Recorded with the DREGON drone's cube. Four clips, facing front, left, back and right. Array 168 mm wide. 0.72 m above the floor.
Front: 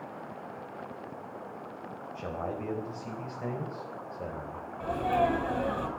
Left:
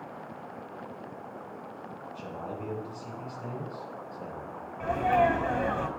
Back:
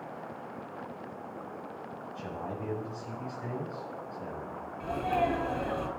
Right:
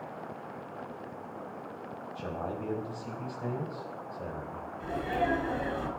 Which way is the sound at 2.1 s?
25° right.